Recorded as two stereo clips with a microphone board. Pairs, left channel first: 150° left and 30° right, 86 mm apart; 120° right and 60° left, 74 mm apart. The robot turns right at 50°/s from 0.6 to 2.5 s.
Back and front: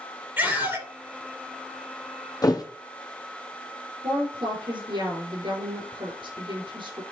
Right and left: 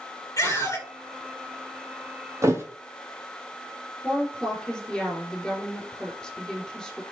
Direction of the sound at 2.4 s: 105° left.